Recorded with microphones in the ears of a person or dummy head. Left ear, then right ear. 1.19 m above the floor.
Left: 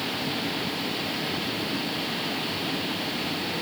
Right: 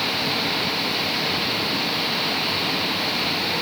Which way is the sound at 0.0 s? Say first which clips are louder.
Right 7 dB; 35° right (ahead or behind).